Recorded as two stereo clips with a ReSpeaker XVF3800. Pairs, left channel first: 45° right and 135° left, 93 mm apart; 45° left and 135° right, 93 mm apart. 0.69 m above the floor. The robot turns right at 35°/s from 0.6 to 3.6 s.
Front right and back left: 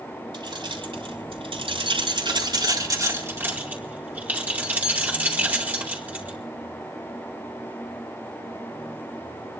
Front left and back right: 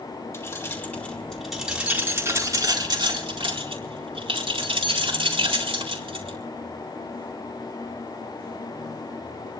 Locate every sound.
0.3 s keys jangling: 100° left, 4.5 m; by 6.4 s 155° right, 4.5 m